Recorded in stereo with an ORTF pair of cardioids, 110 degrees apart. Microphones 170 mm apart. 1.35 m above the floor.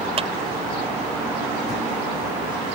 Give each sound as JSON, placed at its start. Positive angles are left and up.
{"t": 0.2, "sound": "a clap", "azimuth_deg": -35}